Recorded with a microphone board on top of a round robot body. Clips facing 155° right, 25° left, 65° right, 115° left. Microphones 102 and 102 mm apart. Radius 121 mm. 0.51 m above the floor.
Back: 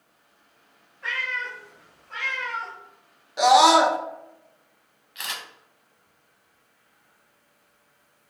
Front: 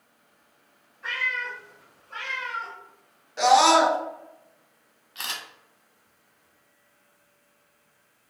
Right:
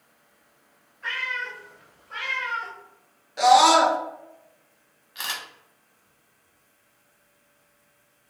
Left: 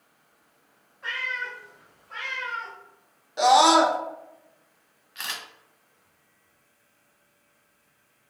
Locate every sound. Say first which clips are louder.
1.0 s a cat meowing: even, right 1 dB; 175° left, 1.5 m; by 2.8 s 105° right, 0.6 m
3.4 s a scream: back 2 dB, right 1 dB; 145° left, 0.7 m
5.2 s a camera shutter: back 1 dB, right 3 dB; 5° right, 1.1 m